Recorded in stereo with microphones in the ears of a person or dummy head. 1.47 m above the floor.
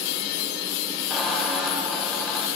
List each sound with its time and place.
1.1 s a squeak: centre (ahead or behind), 0.7 m